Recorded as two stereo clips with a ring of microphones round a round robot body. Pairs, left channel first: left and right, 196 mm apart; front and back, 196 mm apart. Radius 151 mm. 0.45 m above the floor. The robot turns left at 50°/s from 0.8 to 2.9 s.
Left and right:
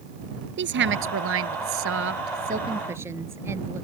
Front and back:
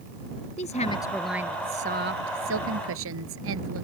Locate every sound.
0.6 s a woman speaking: 65° right; by 3.8 s 170° right